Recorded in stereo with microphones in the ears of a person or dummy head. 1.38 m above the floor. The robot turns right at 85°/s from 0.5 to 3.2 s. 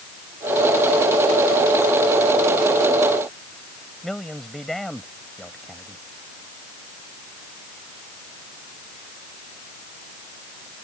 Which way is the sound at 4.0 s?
5° left (ahead or behind).